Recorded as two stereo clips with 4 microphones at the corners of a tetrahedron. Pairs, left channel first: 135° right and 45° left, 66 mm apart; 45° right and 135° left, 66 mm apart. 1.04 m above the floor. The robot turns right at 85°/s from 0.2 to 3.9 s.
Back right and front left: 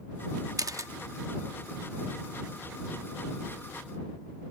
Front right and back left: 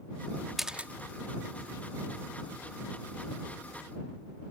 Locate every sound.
0.6 s a camera shutter: 45° left; by 0.9 s 75° left